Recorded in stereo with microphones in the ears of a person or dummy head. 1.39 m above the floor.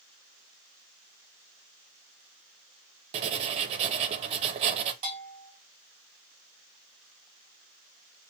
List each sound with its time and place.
3.1 s writing: 35° right (ahead or behind), 0.7 m
5.0 s a bell: 40° right (ahead or behind), 2.5 m